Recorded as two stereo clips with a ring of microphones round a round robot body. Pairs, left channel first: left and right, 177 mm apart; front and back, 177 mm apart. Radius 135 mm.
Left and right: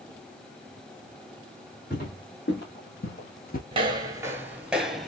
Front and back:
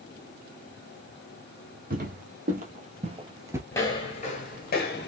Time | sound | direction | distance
1.9 | footsteps | 145° left | 2 m
3.7 | footsteps | 70° right | 0.7 m